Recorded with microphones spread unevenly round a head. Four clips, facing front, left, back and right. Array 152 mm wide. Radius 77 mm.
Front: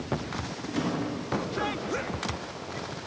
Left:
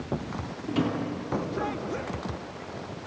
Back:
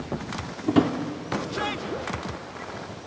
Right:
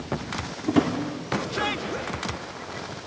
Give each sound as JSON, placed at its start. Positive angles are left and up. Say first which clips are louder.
{"t": 0.7, "sound": "a drawer", "louder": "right 6 dB, back 10 dB", "azimuth_deg": -140, "distance_m": 2.0}